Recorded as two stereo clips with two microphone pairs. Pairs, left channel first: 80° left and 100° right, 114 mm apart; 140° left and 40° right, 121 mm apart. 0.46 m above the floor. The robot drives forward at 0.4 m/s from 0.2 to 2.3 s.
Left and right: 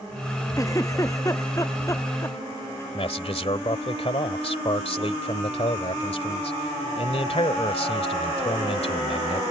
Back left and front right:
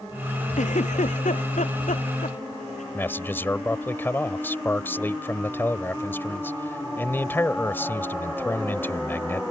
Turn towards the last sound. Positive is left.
turn(degrees=70)